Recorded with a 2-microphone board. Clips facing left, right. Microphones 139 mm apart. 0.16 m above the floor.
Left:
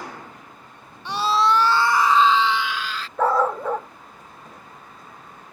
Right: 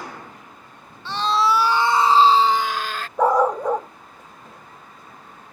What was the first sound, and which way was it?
A scream, 15° left (ahead or behind).